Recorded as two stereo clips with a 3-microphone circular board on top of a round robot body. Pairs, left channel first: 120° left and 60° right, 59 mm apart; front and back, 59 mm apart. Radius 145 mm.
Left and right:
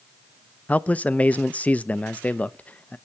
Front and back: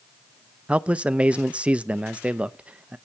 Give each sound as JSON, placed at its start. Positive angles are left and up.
{"t": 0.7, "sound": "a man speaking", "azimuth_deg": 140, "distance_m": 0.6}